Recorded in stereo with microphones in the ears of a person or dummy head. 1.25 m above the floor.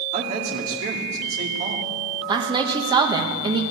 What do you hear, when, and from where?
0.1 s a man speaking: 50° right (ahead or behind), 2 m
2.3 s a woman speaking: 30° right (ahead or behind), 1.2 m